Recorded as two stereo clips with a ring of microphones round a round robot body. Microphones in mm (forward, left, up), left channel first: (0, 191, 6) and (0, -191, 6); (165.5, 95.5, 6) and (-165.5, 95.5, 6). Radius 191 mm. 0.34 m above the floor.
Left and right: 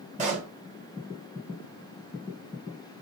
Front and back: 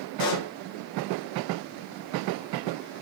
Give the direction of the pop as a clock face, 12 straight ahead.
1 o'clock.